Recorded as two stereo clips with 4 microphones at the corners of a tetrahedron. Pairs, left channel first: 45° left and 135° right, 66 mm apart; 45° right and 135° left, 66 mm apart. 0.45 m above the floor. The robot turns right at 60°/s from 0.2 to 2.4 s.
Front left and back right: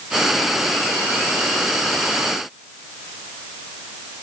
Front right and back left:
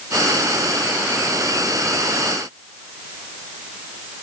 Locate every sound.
Only background noise.